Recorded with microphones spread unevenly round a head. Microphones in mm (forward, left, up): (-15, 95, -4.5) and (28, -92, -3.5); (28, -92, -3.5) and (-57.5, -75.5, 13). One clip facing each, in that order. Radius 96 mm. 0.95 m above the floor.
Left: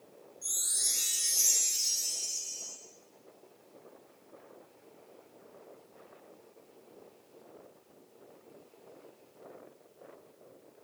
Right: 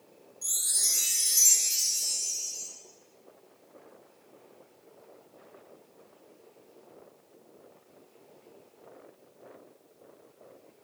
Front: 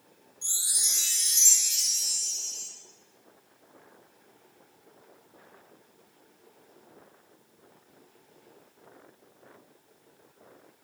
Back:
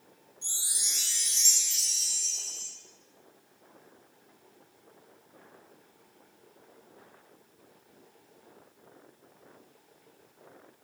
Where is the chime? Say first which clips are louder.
Right 1 dB, front 2 dB; 65° right, 1.0 m.